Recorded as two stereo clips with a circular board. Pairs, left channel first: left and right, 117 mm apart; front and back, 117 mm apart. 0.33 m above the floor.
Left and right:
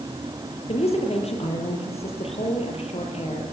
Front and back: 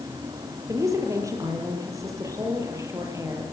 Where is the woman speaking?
120° left, 7.5 m.